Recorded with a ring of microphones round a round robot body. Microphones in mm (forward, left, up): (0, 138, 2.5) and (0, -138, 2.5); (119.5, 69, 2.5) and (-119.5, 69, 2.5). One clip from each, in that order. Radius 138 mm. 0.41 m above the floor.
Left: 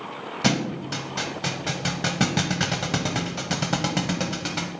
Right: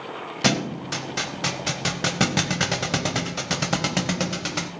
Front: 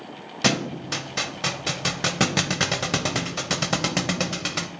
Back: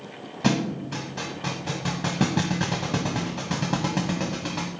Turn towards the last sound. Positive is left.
turn(degrees=-15)